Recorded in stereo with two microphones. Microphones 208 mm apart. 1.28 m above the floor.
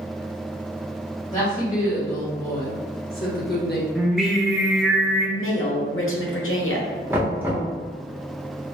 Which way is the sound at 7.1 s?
10° right (ahead or behind).